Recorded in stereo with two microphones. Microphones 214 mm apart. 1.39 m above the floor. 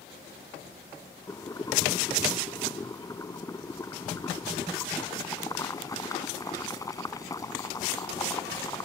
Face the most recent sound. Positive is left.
turn(degrees=15)  # may be behind; listen again after turning